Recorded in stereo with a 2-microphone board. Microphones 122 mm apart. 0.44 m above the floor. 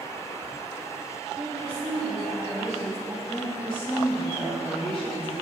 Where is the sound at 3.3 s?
50° left (ahead or behind), 3 m.